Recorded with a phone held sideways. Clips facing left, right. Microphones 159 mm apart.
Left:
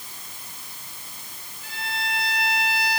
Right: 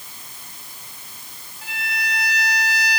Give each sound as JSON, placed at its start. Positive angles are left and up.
{"t": 1.6, "sound": "a violin", "side_deg": -70, "distance_m": 5.0}